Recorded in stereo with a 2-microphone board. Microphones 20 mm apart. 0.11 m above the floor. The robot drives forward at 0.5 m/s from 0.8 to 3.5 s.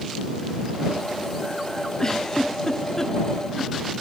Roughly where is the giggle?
Left.